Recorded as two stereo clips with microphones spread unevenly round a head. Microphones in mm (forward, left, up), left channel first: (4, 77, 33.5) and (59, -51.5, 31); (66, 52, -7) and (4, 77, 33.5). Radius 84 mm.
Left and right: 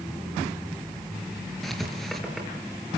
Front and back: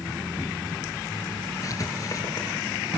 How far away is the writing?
About 5.5 m.